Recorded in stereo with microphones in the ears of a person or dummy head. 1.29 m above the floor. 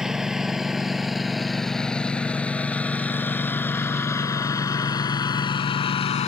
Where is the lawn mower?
5° right (ahead or behind); by 6.3 s 30° left (ahead or behind).